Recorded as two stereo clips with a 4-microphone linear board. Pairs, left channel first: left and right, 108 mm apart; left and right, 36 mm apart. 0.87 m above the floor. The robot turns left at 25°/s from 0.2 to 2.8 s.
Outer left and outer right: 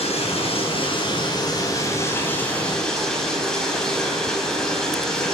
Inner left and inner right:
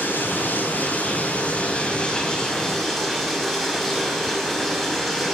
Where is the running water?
70° left, 4 m; by 5.3 s 5° left, 4 m.